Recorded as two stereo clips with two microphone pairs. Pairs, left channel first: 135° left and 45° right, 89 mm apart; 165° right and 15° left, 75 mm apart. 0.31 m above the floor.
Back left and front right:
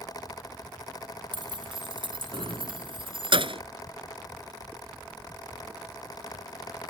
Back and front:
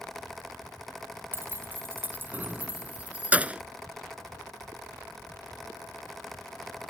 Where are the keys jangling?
35° right; by 3.6 s 55° right.